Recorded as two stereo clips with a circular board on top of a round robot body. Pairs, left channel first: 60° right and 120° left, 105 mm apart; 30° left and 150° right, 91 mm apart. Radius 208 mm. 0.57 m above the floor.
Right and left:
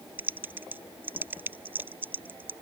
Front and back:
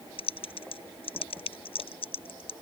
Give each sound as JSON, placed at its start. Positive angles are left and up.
{"t": 0.2, "sound": "typing on a keyboard", "azimuth_deg": 45}